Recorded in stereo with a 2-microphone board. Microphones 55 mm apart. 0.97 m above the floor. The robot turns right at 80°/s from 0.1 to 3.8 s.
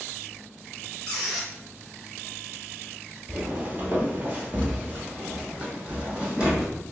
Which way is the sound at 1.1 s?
160° left.